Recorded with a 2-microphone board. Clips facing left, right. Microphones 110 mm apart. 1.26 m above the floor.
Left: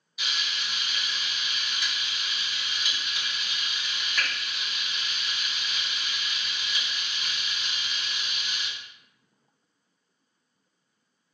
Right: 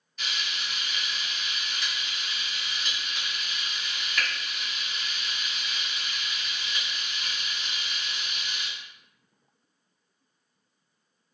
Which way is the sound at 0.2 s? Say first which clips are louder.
Even; 10° left (ahead or behind).